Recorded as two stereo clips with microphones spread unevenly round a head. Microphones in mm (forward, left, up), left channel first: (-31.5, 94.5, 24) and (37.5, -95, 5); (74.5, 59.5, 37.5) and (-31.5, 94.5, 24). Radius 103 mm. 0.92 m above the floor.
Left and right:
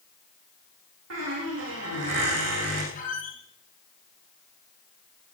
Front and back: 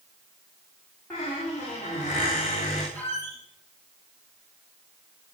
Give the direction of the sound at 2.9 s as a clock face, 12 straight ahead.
7 o'clock.